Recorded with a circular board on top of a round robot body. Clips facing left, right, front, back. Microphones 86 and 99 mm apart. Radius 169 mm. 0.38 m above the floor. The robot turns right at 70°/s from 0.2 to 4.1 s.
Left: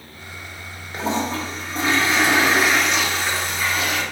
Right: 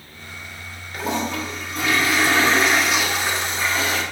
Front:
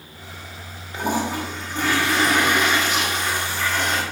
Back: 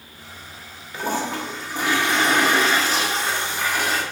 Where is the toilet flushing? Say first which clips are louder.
Left 1 dB, front 2 dB; 50° left, 1.3 m; by 4.0 s 95° right, 1.3 m.